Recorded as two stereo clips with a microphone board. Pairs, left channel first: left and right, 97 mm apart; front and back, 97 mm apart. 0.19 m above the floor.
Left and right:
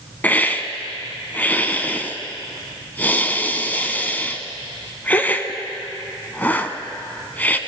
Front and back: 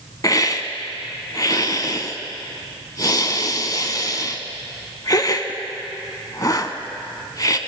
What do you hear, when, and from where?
0.2 s a hiss: 25° left, 0.7 m